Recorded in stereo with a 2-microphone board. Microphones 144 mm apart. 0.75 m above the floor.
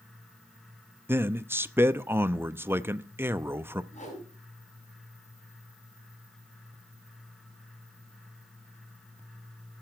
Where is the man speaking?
15° right (ahead or behind), 0.6 m.